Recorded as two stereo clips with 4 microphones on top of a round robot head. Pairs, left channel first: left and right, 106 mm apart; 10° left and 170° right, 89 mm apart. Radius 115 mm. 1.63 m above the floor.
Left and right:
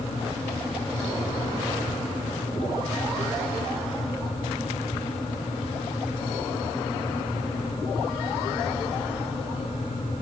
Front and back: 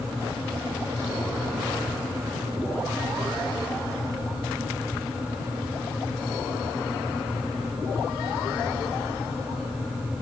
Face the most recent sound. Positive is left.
No sound to turn to.